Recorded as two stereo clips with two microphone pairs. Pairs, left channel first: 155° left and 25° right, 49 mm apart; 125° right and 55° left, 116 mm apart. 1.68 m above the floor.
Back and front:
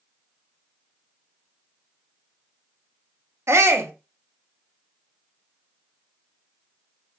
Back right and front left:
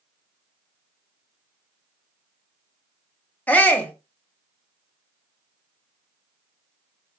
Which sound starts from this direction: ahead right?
A shout, at 3.5 s.